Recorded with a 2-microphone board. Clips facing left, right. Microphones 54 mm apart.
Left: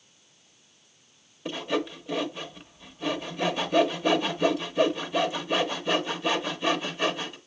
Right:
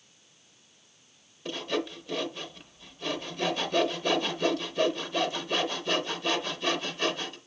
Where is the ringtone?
I don't hear a ringtone.